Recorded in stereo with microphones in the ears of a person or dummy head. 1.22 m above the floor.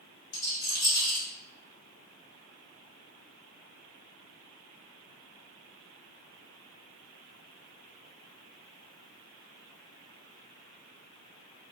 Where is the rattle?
55° left (ahead or behind), 1.7 m.